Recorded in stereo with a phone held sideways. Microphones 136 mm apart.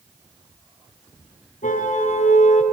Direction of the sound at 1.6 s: 65° left (ahead or behind).